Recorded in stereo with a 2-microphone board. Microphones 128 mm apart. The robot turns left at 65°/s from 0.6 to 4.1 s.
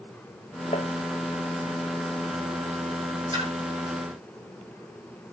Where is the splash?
35° right (ahead or behind), 4 m; by 3.5 s 50° right (ahead or behind), 4 m.